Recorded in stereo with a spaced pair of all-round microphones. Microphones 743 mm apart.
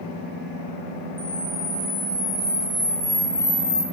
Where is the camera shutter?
75° left (ahead or behind), 4.5 m.